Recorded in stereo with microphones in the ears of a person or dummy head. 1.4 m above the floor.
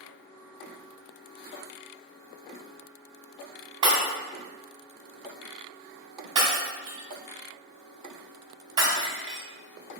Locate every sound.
3.8 s breaking glass: 25° right (ahead or behind), 3 m